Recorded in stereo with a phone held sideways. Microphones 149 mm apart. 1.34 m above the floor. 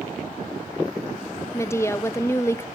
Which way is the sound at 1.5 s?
20° left (ahead or behind).